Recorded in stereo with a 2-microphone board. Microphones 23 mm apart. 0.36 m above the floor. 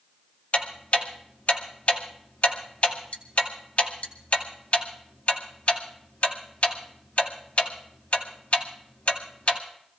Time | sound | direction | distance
0.5 | ticking | 60° left (ahead or behind) | 1.9 m